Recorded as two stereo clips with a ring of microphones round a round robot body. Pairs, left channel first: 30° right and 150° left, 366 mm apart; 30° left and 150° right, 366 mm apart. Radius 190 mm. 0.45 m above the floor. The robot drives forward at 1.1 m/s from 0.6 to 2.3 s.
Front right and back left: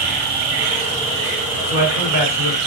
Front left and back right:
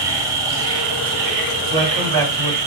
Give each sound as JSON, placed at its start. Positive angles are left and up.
{"t": 0.0, "sound": "an insect", "azimuth_deg": 135, "distance_m": 3.0}
{"t": 1.7, "sound": "a man speaking", "azimuth_deg": -165, "distance_m": 3.5}